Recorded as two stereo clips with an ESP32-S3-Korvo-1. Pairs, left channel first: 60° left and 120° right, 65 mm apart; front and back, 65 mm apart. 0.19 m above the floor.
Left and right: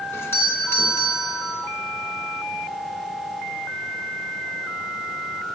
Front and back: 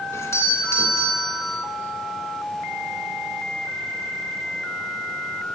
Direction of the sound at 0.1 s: 25° left.